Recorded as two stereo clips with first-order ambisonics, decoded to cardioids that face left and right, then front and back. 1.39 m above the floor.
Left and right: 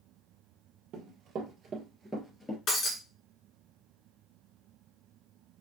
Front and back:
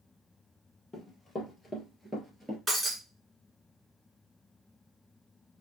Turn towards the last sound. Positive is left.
turn(degrees=110)